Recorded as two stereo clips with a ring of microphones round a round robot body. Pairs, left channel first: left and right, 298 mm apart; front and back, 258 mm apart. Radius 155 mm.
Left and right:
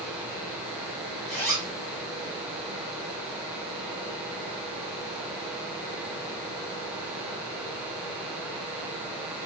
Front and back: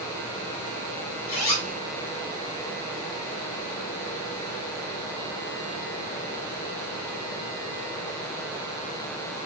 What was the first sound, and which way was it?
A zipper, straight ahead.